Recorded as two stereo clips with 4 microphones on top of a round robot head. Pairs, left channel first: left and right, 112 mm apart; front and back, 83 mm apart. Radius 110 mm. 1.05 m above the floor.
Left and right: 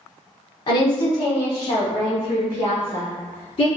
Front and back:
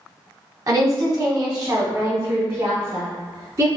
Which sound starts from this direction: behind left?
A woman speaking, at 0.7 s.